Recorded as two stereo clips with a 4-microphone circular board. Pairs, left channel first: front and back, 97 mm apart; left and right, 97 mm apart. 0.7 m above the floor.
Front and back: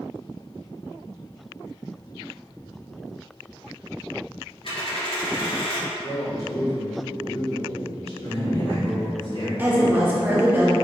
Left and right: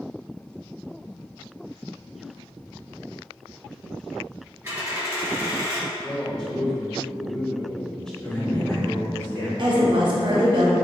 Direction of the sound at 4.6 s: 20° right.